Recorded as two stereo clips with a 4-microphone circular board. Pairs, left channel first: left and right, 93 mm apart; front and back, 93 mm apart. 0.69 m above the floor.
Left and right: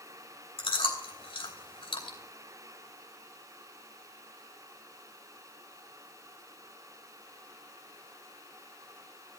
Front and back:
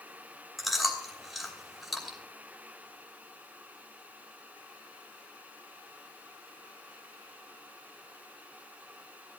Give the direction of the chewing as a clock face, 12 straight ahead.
9 o'clock.